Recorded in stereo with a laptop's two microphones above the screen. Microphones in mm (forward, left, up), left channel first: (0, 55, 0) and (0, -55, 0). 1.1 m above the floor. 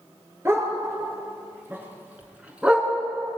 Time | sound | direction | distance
0.5 | a dog barking | 25° right (ahead or behind) | 6.5 m